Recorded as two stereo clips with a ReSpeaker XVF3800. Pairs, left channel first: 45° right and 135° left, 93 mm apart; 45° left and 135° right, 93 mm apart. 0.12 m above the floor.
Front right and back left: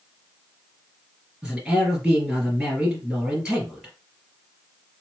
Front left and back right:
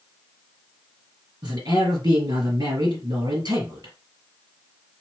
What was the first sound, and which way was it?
A man speaking, 140° right.